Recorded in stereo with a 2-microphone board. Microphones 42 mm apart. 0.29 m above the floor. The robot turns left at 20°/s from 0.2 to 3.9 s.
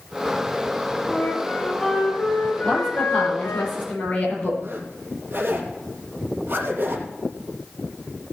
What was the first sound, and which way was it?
A flute, 170° left.